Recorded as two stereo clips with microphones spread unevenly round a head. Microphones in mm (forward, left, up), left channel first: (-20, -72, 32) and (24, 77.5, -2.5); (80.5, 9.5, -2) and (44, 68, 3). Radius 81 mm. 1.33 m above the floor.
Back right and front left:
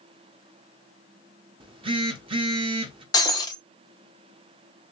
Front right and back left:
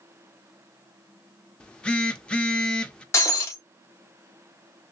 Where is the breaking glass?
85° right, 0.7 m.